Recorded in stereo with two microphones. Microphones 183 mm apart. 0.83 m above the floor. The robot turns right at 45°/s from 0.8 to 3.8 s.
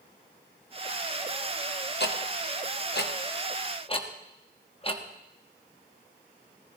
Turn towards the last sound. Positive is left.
turn(degrees=30)  # may be behind; listen again after turning